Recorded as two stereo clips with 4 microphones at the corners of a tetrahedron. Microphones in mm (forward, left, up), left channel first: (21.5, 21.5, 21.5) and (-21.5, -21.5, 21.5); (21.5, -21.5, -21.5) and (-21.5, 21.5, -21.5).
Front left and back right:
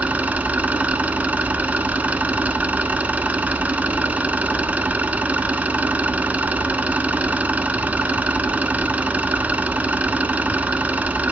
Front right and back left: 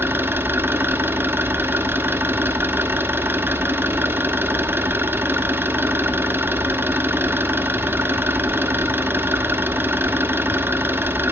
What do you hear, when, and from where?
0.0 s an engine running: 170° left, 1.0 m